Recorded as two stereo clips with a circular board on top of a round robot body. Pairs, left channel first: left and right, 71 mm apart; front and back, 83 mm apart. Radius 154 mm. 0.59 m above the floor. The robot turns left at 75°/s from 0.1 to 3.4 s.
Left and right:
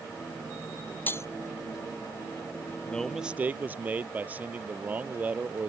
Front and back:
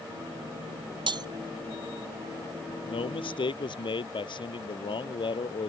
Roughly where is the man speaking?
Ahead.